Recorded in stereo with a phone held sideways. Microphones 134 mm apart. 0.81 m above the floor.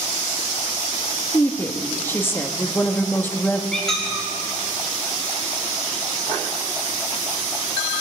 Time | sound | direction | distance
1.3 | a woman speaking | 15° left (ahead or behind) | 1.1 m
3.7 | a squeak | 5° left (ahead or behind) | 2.5 m